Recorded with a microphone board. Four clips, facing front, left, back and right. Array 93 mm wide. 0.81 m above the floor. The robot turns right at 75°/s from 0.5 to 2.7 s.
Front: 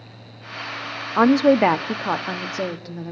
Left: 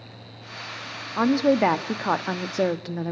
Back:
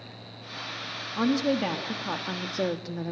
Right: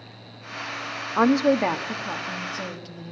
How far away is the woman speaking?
About 1.1 m.